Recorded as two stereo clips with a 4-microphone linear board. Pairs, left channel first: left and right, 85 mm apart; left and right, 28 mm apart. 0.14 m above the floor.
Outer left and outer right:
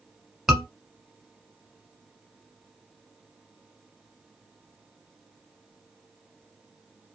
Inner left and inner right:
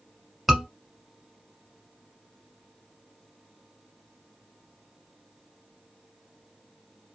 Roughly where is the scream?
Centre.